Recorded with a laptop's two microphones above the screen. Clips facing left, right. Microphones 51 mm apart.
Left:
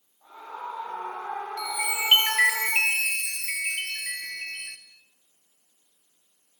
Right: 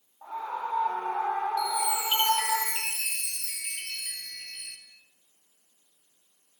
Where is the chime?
65° left (ahead or behind), 2.5 m.